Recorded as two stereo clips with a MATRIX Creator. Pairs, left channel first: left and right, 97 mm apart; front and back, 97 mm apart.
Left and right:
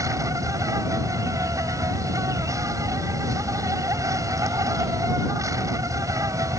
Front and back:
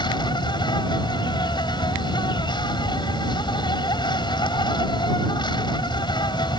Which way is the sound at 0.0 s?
35° right.